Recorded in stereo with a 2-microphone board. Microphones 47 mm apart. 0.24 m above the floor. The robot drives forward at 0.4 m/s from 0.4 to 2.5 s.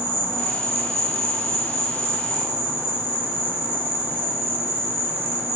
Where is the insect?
60° right (ahead or behind), 0.8 m; by 5.6 s 55° right (ahead or behind), 0.8 m.